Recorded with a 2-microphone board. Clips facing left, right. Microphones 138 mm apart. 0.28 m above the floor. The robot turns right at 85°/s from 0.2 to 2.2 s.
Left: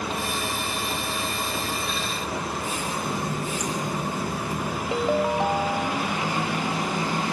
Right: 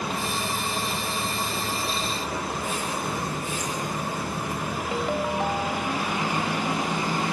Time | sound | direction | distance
3.0 | a running tap | 15° left (ahead or behind) | 3.5 m
4.9 | a ringtone | 20° left (ahead or behind) | 0.9 m